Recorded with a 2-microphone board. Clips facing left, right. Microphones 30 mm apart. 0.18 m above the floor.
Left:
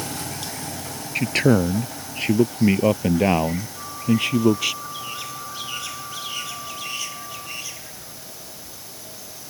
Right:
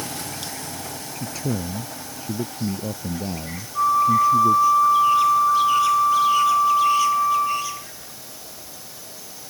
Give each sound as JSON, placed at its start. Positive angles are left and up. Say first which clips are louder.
{"t": 1.1, "sound": "a man speaking", "louder": "left 11 dB", "side_deg": 60}
{"t": 3.8, "sound": "a flute", "louder": "right 9 dB", "side_deg": -75}